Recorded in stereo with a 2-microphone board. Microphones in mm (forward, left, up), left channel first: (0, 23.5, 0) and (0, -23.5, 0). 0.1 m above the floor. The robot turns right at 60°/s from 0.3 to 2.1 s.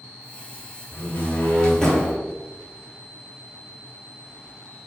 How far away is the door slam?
About 1.5 m.